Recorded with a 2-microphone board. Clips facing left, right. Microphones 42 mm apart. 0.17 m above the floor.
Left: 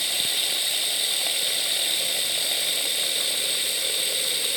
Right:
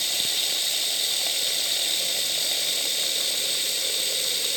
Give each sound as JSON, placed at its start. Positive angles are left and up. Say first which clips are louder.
{"t": 0.0, "sound": "running water", "louder": "left 1 dB", "side_deg": 15}